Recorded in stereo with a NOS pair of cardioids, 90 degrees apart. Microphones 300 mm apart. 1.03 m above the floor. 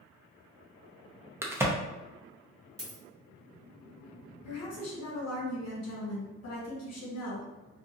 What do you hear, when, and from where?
1.4 s a crack: 10° right, 0.6 m
2.8 s a dropped coin: 10° right, 1.3 m
4.4 s a woman speaking: 65° left, 1.3 m